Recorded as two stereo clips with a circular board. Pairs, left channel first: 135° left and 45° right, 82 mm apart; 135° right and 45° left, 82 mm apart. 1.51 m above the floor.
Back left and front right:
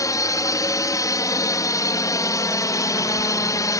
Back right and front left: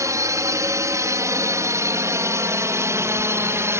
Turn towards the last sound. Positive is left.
turn(degrees=100)